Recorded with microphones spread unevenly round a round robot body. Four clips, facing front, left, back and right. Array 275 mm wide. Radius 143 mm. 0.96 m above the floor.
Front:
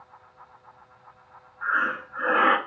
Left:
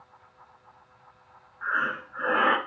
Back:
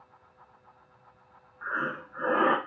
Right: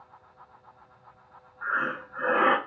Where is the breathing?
150° right, 0.7 m.